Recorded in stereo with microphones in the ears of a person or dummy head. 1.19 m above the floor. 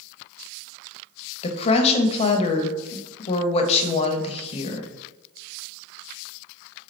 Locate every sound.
1.4 s a woman speaking: 35° left (ahead or behind), 0.9 m